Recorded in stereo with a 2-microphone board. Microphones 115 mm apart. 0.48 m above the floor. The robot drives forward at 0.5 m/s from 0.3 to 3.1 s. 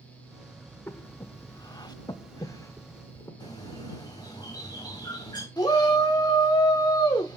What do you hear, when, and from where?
0.9 s breathing: 20° left (ahead or behind), 0.7 m
3.4 s a bird: 35° left (ahead or behind), 3 m
5.6 s a shout: 35° left (ahead or behind), 1.0 m